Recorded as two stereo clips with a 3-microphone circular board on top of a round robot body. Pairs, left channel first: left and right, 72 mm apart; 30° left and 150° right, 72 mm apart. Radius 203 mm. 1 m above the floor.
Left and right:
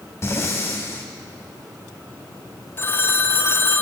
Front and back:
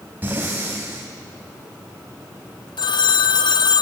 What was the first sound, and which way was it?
Breathing, 145° left.